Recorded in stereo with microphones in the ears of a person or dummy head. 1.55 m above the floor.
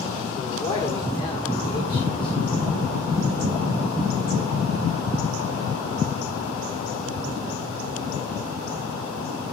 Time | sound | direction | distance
0.3 | a man speaking | 25° left (ahead or behind) | 1.3 m